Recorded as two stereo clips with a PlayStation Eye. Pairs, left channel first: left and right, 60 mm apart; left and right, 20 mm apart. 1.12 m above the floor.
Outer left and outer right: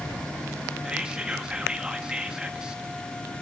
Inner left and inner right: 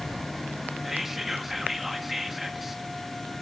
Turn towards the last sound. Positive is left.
turn(degrees=-15)  # may be behind; listen again after turning